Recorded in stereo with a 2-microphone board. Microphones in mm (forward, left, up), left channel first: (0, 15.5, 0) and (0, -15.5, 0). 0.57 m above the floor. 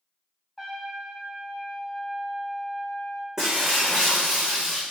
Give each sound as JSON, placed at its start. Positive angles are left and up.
{"t": 0.6, "sound": "a trumpet", "side_deg": -10, "distance_m": 4.0}
{"t": 3.4, "sound": "breaking glass", "side_deg": -15, "distance_m": 4.5}